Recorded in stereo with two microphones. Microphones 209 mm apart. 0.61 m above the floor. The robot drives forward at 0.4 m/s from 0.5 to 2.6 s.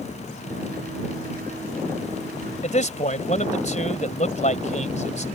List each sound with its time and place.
2.6 s a man speaking: 35° left (ahead or behind)